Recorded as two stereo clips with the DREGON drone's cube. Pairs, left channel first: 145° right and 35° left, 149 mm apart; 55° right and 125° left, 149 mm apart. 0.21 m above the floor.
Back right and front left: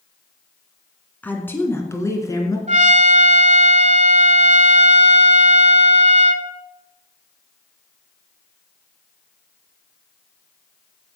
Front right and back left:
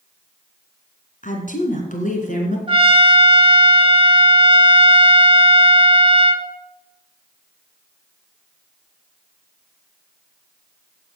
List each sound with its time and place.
1.2 s a woman speaking: 70° right, 2.5 m; by 2.6 s 80° right, 3 m
2.7 s a trumpet: 70° left, 0.7 m